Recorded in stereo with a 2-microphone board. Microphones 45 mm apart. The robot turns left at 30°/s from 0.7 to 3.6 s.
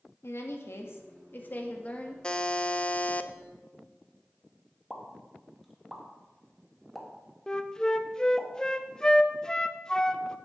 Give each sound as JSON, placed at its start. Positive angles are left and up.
{"t": 0.2, "sound": "a woman speaking", "azimuth_deg": 70, "distance_m": 1.8}
{"t": 2.2, "sound": "a buzzer", "azimuth_deg": 145, "distance_m": 0.6}
{"t": 4.9, "sound": "a pop", "side_deg": 0, "distance_m": 1.8}
{"t": 7.5, "sound": "a flute", "side_deg": 15, "distance_m": 0.6}